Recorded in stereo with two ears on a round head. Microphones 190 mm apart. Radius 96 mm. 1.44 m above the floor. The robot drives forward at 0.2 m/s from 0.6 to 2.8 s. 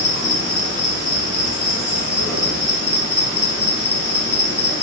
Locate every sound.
0.0 s an insect: 55° left (ahead or behind), 1.2 m; by 4.8 s 60° left (ahead or behind), 1.2 m